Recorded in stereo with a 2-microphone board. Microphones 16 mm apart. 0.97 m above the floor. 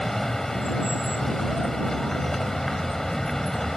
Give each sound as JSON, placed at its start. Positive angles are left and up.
{"t": 0.0, "sound": "a vehicle", "side_deg": 25}